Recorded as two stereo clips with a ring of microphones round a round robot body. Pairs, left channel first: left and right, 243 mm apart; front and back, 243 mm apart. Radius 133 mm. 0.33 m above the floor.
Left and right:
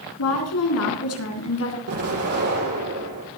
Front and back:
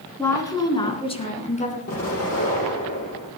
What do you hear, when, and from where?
0.2 s a woman speaking: 80° left, 3.5 m; by 1.8 s 60° left, 3.5 m
1.9 s an explosion: 65° right, 6.5 m